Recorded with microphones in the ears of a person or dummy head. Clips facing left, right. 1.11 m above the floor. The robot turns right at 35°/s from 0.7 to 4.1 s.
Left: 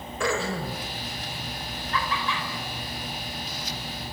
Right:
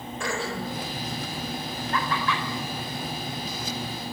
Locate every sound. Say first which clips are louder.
0.2 s throat clearing: left 4 dB; 75° left (ahead or behind), 4 m; by 0.9 s 80° left, 4 m
1.9 s laughter: right 2 dB; 40° right (ahead or behind), 3.5 m; by 2.4 s 60° right (ahead or behind), 3.5 m